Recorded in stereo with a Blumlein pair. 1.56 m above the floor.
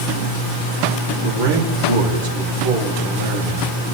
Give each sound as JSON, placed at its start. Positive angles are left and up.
{"t": 1.2, "sound": "a man speaking", "azimuth_deg": -65, "distance_m": 3.5}